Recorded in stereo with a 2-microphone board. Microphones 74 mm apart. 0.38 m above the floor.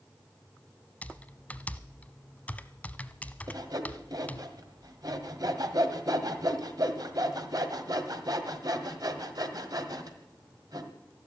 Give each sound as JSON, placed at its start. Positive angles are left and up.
{"t": 1.0, "sound": "typing on a keyboard", "side_deg": 20, "distance_m": 0.6}
{"t": 3.5, "sound": "sawing", "side_deg": -60, "distance_m": 1.6}